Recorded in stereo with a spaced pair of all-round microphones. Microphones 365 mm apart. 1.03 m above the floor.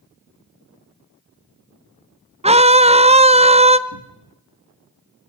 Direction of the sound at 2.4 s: 15° right (ahead or behind).